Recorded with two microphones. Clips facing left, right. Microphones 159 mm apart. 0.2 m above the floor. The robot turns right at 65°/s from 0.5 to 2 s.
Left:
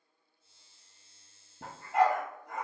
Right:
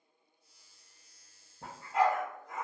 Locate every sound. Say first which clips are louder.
1.6 s a dog barking: left 2 dB; 80° left, 1.8 m; by 2.6 s 60° left (ahead or behind), 1.8 m